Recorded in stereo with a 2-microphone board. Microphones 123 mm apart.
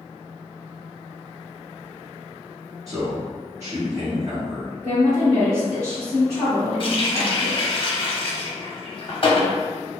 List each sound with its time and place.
2.9 s a man speaking: 25° right (ahead or behind), 1.1 m
4.8 s a woman speaking: 10° left (ahead or behind), 1.4 m
6.8 s a running tap: 45° left (ahead or behind), 0.8 m